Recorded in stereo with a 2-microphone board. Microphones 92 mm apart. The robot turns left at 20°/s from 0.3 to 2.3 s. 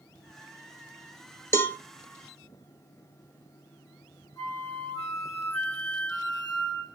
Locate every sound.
1.5 s a cowbell: 25° left (ahead or behind), 0.5 m; by 1.8 s 20° left (ahead or behind), 0.5 m
4.4 s a flute: 30° left (ahead or behind), 1.1 m